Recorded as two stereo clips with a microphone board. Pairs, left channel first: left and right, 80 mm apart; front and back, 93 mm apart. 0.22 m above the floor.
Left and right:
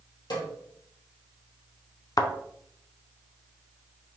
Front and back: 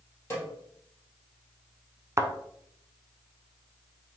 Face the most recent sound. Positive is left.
turn(degrees=125)